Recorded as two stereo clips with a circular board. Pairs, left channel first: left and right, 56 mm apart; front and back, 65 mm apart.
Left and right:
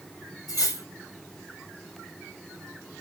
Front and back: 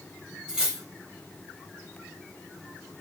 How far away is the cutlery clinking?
About 1.6 m.